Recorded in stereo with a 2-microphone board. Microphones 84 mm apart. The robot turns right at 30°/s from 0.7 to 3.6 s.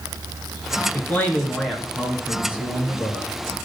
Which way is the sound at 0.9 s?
150° left.